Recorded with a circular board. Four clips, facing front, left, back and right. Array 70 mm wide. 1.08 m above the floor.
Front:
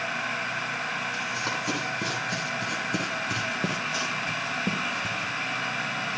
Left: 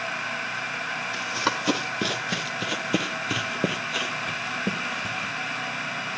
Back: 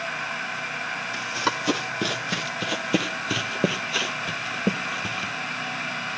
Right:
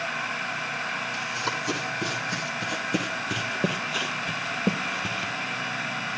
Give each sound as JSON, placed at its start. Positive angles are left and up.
{"t": 1.1, "sound": "running footsteps", "azimuth_deg": 125, "distance_m": 2.5}